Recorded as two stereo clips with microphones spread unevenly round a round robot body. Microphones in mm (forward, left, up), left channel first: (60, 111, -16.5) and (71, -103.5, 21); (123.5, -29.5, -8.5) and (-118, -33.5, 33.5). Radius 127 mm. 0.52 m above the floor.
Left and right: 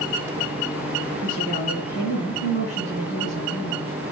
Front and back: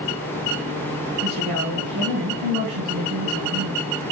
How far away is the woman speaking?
About 5 m.